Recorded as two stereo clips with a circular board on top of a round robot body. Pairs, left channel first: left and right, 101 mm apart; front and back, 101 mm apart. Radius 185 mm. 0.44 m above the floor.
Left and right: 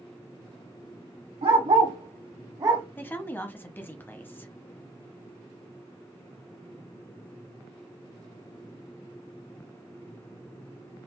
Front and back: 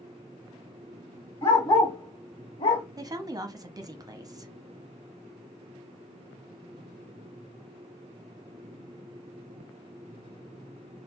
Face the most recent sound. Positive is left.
turn(degrees=150)